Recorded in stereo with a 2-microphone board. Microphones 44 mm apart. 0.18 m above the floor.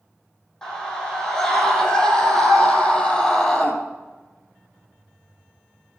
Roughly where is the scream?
Centre.